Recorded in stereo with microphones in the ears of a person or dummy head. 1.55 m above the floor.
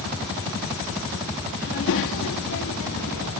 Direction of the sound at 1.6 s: 60° left (ahead or behind).